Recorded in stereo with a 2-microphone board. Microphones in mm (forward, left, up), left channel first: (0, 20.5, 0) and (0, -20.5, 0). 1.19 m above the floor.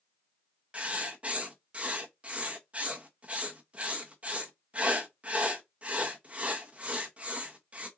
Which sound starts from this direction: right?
Writing, at 0.7 s.